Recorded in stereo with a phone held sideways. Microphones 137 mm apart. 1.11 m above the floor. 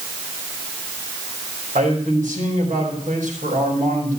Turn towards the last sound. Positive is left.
turn(degrees=-70)  # may be behind; listen again after turning